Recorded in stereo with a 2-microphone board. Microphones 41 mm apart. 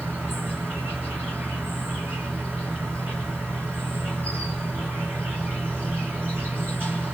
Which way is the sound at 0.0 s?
55° right (ahead or behind).